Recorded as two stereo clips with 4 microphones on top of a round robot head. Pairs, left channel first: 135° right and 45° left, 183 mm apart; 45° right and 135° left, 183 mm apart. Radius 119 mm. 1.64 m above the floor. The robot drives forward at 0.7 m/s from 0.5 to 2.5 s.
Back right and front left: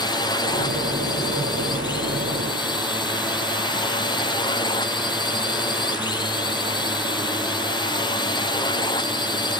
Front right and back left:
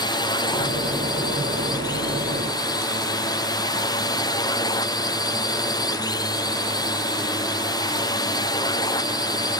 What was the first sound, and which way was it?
A drone, 90° right.